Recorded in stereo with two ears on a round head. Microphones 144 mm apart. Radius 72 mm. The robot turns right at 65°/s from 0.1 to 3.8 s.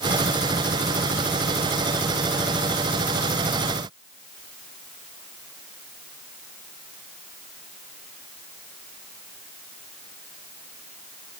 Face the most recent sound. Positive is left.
No sound to turn to.